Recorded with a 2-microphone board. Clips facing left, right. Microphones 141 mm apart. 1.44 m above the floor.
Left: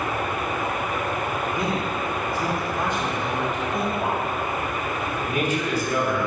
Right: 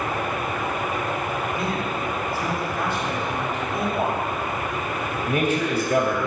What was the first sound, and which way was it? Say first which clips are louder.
A man speaking: left 1 dB; 20° left (ahead or behind).